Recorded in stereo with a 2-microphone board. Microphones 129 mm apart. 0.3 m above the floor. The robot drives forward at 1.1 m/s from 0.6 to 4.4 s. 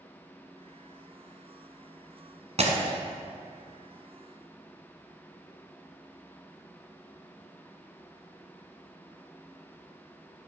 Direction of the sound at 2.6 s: 60° right (ahead or behind).